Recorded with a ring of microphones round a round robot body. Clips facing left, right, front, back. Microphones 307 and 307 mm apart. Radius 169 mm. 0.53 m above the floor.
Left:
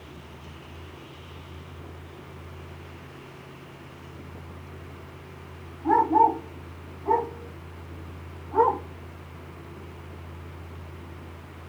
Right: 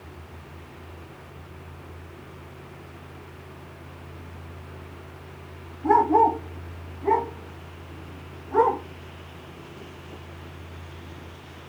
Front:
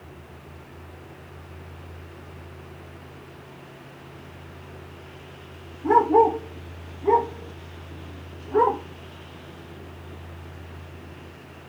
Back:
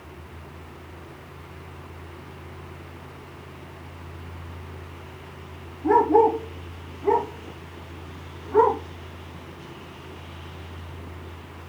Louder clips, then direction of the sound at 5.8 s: Right 3 dB, back 1 dB; 85° right.